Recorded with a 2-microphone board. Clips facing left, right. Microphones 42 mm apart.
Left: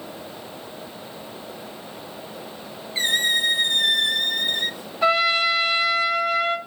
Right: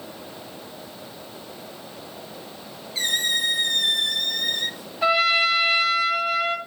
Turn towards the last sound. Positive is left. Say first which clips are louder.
# even
turn(degrees=0)  # may be behind; listen again after turning